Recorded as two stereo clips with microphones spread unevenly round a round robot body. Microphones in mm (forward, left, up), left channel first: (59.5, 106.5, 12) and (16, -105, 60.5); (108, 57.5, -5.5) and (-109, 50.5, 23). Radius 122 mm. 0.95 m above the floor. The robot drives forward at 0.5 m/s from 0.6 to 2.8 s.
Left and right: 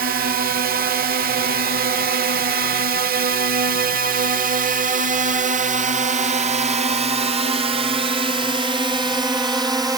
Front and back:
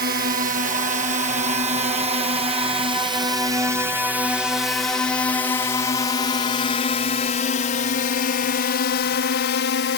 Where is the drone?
145° right; by 10.0 s 25° right.